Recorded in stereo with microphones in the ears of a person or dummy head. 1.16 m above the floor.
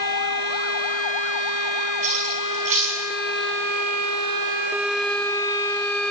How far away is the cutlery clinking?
About 6 m.